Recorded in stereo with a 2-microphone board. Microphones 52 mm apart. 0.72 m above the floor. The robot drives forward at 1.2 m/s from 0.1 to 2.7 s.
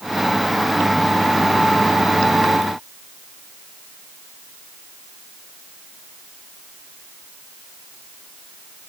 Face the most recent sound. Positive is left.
No sound to turn to.